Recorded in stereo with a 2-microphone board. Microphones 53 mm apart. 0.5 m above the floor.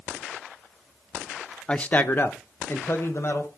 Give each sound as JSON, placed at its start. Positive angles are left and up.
{"t": 1.7, "sound": "a man speaking", "side_deg": 20, "distance_m": 0.7}